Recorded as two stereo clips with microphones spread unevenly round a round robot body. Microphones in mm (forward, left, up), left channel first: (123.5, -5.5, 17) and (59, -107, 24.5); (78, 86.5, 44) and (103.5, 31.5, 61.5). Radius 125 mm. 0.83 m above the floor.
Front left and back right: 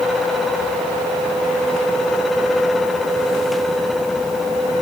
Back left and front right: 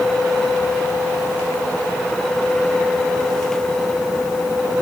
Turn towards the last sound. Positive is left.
No sound to turn to.